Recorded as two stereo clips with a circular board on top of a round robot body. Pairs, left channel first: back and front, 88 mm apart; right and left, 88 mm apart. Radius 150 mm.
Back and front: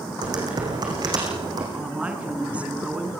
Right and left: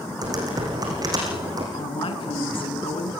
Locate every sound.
0.2 s typing on a keyboard: 40° left, 6.5 m
1.7 s a woman speaking: 75° right, 5 m